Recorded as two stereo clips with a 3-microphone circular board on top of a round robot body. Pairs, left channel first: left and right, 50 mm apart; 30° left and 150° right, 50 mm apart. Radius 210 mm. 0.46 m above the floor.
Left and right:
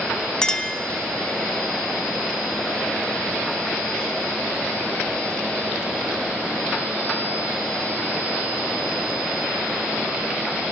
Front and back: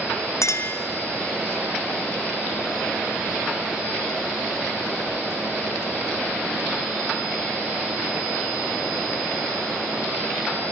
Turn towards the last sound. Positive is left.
turn(degrees=15)